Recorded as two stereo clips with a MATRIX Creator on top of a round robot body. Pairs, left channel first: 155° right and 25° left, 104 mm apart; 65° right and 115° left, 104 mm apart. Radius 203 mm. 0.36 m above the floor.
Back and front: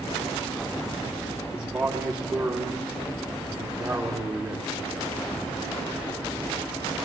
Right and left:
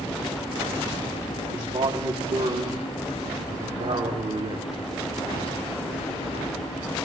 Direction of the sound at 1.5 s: 105° left.